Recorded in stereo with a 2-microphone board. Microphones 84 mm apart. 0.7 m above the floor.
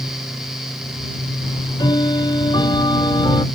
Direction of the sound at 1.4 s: 70° left (ahead or behind).